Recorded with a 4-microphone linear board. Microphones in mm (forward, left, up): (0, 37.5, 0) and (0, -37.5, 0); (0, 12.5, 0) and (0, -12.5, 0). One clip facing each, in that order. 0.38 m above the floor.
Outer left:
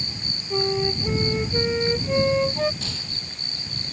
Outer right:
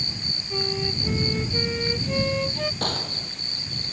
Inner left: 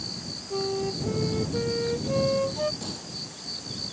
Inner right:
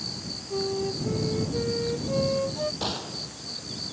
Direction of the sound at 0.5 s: 20° left (ahead or behind).